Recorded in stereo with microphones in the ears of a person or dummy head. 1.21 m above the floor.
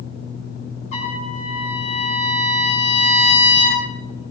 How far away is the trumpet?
About 7 m.